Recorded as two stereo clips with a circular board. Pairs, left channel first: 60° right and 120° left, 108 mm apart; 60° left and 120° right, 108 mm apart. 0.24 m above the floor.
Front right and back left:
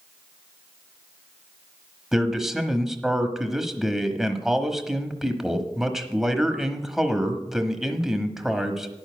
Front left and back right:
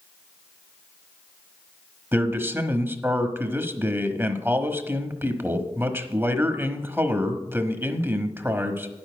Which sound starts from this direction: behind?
A man speaking, at 2.1 s.